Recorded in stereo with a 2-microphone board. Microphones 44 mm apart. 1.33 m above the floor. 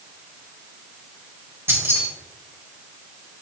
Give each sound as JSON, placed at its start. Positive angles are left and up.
{"t": 1.7, "sound": "keys jangling", "side_deg": -65, "distance_m": 1.8}